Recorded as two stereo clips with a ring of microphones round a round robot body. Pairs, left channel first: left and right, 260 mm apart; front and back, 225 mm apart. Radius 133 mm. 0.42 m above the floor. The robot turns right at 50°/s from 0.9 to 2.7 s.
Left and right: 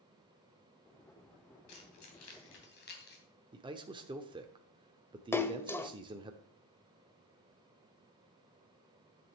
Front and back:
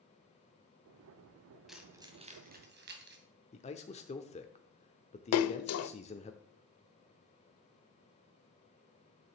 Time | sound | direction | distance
1.7 | keys jangling | 90° left | 2.5 m
3.5 | a man speaking | 30° right | 0.9 m
5.3 | a splash | 10° left | 0.6 m